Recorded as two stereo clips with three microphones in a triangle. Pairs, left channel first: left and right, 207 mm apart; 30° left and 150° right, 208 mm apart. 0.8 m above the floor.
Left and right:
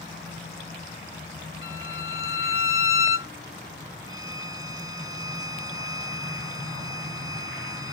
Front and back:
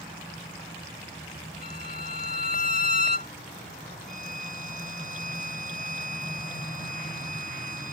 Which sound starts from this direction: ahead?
A violin, at 4.1 s.